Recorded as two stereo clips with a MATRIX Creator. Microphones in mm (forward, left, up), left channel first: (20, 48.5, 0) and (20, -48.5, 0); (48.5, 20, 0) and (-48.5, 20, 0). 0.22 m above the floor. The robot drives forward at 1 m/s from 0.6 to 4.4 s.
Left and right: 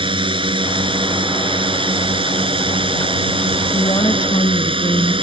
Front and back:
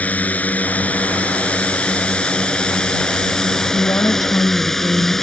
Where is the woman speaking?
50° left; by 5.1 s 60° left.